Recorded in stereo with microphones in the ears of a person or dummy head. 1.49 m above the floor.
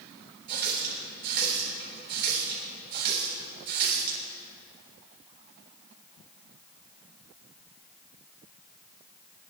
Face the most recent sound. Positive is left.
turn(degrees=-50)  # may be behind; listen again after turning